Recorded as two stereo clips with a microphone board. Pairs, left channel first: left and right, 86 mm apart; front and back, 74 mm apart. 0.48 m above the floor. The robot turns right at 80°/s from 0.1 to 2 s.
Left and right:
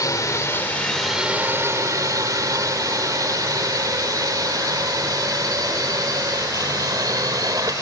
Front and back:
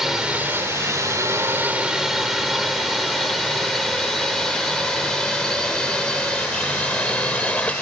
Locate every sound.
0.0 s a drone: 95° left; by 7.8 s 70° right